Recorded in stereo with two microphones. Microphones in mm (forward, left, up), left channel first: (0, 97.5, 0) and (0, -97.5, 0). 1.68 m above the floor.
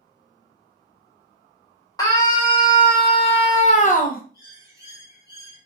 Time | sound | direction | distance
2.0 | a scream | 15° left (ahead or behind) | 1.8 m
4.3 | a bird | 15° right (ahead or behind) | 3 m